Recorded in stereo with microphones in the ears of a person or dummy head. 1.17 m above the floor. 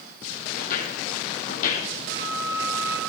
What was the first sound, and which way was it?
Footsteps, 50° left (ahead or behind).